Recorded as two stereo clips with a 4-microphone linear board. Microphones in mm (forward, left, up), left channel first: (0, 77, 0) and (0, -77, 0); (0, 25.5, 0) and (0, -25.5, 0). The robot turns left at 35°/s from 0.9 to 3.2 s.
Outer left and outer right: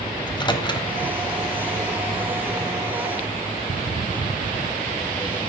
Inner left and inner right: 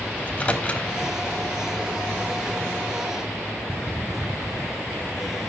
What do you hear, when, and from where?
0.2 s a microwave: 30° left (ahead or behind), 0.9 m